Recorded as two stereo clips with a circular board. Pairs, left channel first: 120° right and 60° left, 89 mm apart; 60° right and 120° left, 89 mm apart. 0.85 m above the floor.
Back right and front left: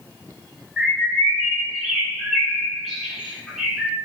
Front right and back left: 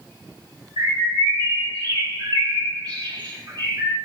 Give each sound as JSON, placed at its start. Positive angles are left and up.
{"t": 0.8, "sound": "a bird", "azimuth_deg": 145, "distance_m": 1.5}